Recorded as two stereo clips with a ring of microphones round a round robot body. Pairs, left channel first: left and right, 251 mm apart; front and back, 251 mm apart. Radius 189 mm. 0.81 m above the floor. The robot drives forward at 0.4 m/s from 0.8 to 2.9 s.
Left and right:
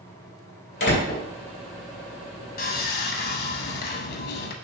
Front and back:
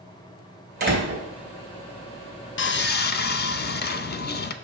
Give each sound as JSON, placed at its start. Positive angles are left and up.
{"t": 0.8, "sound": "a door slam", "azimuth_deg": 130, "distance_m": 3.0}
{"t": 2.6, "sound": "sawing", "azimuth_deg": 40, "distance_m": 0.7}